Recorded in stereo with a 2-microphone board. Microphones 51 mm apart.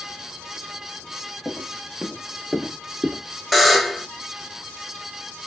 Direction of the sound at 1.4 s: Centre (ahead or behind).